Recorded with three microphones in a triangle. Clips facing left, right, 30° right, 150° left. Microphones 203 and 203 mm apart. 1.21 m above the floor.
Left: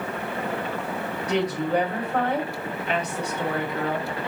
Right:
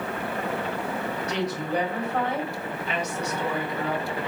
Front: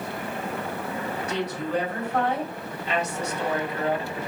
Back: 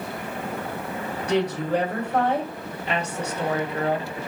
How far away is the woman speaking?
About 2.5 m.